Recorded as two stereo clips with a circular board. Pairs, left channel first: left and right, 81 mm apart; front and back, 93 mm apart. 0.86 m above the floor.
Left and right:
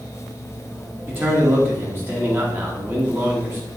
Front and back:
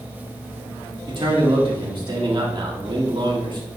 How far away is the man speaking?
About 1.8 m.